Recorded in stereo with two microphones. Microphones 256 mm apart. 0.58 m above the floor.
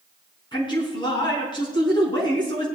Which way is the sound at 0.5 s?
20° left (ahead or behind).